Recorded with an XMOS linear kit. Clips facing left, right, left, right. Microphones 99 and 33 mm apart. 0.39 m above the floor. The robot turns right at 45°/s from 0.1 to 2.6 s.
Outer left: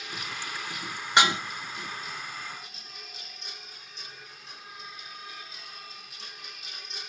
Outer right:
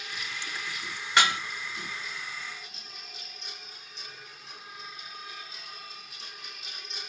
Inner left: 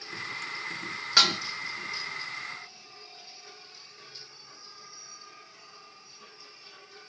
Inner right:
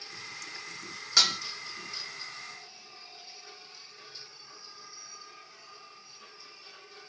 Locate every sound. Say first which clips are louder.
1.2 s dishes clattering: outer left 2 dB, inner left 3 dB; 20° left (ahead or behind), 0.5 m; by 1.4 s 25° left (ahead or behind), 0.5 m